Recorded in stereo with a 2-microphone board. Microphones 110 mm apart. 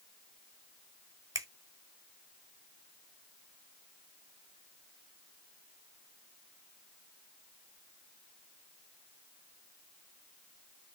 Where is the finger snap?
30° right (ahead or behind), 1.2 m.